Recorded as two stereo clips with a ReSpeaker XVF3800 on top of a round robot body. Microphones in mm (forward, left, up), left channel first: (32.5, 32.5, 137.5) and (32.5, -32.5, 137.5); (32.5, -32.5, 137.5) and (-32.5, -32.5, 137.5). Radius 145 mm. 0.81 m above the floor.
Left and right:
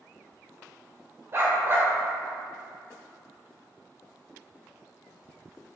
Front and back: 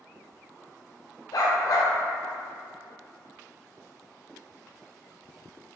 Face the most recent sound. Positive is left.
turn(degrees=-35)